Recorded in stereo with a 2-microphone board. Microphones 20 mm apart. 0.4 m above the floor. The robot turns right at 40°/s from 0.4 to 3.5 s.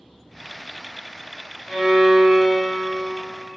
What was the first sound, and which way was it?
A violin, 110° left.